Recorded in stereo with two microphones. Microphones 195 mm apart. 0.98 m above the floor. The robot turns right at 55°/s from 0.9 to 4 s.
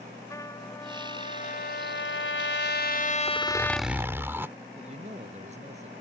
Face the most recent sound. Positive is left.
turn(degrees=-35)  # may be behind; listen again after turning